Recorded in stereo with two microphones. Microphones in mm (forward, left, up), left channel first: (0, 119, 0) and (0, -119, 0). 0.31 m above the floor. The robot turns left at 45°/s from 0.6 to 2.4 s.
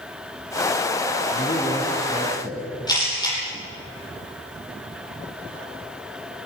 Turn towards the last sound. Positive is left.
turn(degrees=15)  # may be behind; listen again after turning